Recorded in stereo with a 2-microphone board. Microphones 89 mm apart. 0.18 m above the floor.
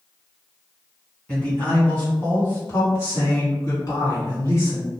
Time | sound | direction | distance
1.3 | a man speaking | 15° left (ahead or behind) | 1.6 m